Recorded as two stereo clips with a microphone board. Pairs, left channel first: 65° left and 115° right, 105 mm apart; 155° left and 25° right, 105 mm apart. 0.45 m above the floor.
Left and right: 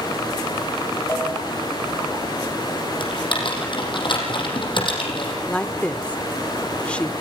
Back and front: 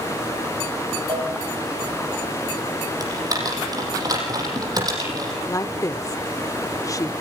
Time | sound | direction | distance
1.1 | a cowbell | 5° left | 4 m
3.0 | typing on a keyboard | 30° left | 6 m
5.5 | a woman speaking | 140° left | 0.9 m